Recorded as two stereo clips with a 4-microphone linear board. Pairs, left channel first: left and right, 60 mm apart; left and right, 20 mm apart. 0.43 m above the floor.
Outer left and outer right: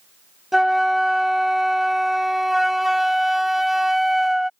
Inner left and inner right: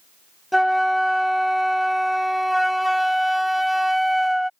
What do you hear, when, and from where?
0.5 s a flute: 5° right (ahead or behind)